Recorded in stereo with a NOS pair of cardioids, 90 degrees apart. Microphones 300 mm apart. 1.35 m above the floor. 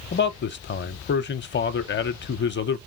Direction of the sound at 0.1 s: 40° left.